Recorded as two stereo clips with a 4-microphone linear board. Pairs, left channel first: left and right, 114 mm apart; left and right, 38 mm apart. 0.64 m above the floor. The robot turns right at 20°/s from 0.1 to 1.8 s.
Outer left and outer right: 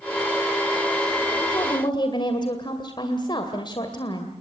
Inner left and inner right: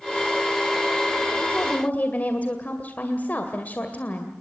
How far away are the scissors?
No scissors in this recording.